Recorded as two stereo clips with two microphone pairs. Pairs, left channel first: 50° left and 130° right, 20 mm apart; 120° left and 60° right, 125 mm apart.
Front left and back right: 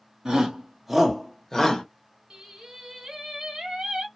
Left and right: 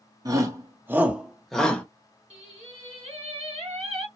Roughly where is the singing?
Right.